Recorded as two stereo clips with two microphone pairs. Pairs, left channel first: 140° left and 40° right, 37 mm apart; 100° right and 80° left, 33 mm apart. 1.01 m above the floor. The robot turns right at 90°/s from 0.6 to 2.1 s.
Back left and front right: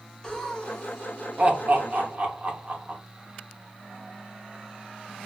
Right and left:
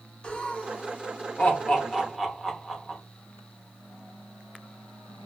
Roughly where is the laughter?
Behind right.